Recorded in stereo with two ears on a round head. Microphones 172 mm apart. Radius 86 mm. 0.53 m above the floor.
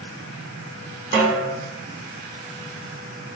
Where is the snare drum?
45° right (ahead or behind), 0.9 m.